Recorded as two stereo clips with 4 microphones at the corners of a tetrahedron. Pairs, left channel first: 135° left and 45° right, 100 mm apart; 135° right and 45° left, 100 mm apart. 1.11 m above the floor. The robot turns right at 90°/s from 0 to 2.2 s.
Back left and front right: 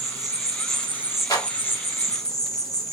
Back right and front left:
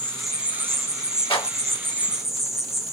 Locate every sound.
0.0 s an insect: 70° right, 0.7 m; by 2.9 s 130° left, 0.7 m
1.3 s a clap: 175° right, 1.5 m; by 1.5 s 160° right, 1.5 m